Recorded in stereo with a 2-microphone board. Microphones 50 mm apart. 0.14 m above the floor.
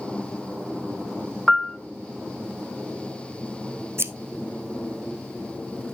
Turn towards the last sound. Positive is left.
turn(degrees=-55)  # may be behind; listen again after turning